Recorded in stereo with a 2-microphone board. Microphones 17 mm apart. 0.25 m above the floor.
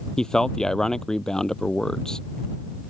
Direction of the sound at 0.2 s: 40° left (ahead or behind).